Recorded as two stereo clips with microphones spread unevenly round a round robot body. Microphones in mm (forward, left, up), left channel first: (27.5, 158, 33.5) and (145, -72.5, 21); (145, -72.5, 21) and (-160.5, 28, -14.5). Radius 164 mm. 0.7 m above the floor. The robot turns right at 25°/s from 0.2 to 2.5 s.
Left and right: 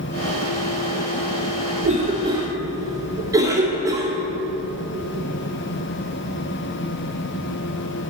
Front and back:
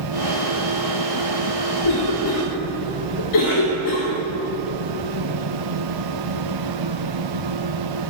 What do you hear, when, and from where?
1.8 s a cough: 5° right, 1.7 m; by 4.1 s 10° left, 1.7 m